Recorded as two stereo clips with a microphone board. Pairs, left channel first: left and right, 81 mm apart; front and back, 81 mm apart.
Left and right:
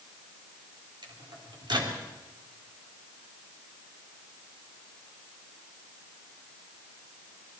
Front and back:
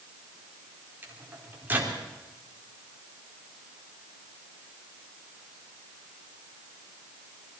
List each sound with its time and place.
1.0 s a microwave: 115° right, 3.5 m